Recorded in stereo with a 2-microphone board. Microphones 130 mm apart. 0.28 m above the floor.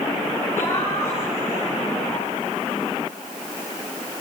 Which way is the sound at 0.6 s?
20° left (ahead or behind).